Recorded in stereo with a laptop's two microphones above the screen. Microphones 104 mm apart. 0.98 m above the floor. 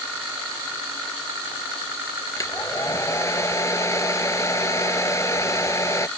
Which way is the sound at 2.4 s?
30° left (ahead or behind).